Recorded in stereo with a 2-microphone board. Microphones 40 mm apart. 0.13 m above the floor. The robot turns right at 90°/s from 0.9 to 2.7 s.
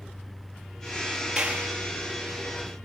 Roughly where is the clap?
Behind.